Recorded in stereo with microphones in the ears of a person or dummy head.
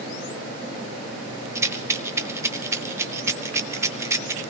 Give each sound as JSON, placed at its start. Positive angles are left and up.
{"t": 1.6, "sound": "a rattle", "side_deg": -15, "distance_m": 0.6}